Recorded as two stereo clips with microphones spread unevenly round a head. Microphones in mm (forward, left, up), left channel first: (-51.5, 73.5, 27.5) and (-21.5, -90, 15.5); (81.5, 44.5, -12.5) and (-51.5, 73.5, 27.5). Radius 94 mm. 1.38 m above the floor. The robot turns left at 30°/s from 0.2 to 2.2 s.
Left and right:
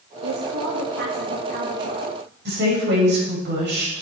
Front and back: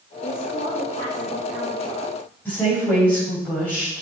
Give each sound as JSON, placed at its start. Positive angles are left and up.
{"t": 0.2, "sound": "a woman speaking", "azimuth_deg": -55, "distance_m": 1.8}
{"t": 2.5, "sound": "a woman speaking", "azimuth_deg": -95, "distance_m": 6.0}